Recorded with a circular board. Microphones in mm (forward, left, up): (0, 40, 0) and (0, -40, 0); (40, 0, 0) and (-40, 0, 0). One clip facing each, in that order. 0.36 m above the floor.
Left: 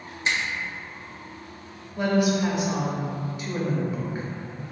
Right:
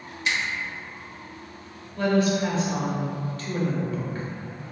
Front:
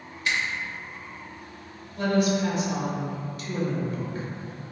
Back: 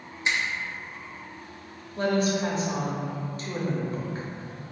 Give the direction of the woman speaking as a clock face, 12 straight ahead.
7 o'clock.